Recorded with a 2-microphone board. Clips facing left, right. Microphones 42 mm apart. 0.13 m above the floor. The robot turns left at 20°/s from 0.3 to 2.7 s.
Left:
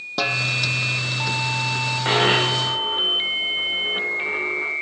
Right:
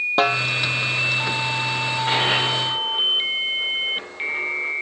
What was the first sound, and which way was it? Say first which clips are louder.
A snare drum: right 2 dB; 35° right (ahead or behind).